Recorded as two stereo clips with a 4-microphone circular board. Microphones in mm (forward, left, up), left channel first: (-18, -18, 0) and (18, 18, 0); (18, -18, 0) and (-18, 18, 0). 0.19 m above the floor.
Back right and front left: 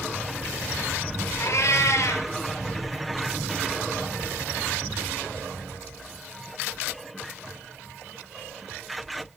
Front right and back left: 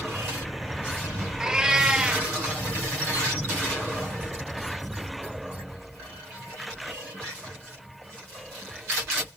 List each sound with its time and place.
1.4 s a cat meowing: 150° right, 0.5 m